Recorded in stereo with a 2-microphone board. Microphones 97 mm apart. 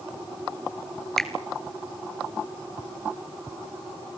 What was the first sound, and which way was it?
A finger snap, 5° left (ahead or behind).